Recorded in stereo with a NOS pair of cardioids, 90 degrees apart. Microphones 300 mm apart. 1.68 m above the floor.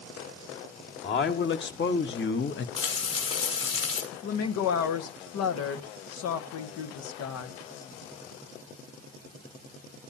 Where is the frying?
55° left, 6.5 m.